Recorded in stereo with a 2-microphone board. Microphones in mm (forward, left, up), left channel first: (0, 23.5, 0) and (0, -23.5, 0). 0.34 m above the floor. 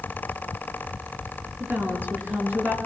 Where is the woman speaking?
45° right (ahead or behind), 6 m.